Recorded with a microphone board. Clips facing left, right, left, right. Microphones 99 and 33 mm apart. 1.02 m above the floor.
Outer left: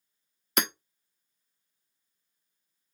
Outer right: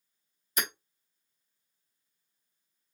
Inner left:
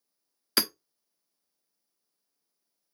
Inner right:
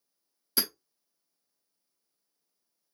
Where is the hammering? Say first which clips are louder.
Outer left 5 dB, inner left 4 dB; 80° left, 0.8 m.